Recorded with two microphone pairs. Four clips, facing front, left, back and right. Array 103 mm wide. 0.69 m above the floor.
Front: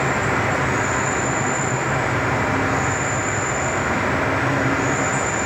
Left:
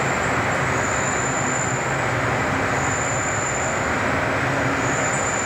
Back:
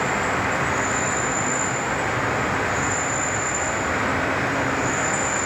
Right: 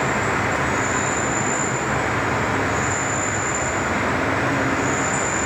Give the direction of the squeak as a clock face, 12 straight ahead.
I don't hear a squeak.